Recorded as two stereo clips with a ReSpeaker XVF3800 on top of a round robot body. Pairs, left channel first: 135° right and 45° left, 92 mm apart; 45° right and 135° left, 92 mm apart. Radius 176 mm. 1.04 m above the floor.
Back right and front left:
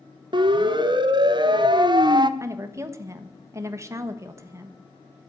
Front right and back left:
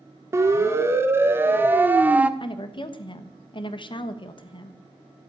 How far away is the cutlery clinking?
No cutlery clinking in this recording.